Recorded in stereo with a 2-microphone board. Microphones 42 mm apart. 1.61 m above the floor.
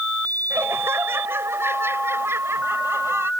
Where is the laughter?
65° right (ahead or behind); by 3.3 s 80° right.